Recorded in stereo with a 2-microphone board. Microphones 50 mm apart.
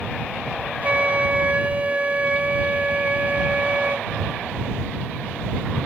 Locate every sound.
0.8 s a flute: 30° right (ahead or behind)